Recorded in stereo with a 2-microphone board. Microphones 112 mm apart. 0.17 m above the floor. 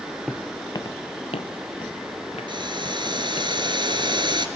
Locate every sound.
0.3 s footsteps: centre (ahead or behind), 0.8 m; by 3.5 s 75° left (ahead or behind), 4.5 m
2.5 s boiling: 45° right (ahead or behind), 2.5 m